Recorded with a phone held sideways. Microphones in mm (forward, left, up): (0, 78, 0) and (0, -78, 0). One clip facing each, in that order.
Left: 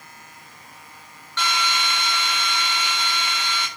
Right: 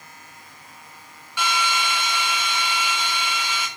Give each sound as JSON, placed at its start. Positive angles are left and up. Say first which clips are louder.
{"t": 1.4, "sound": "a drill", "louder": "right 1 dB", "side_deg": -10, "distance_m": 7.5}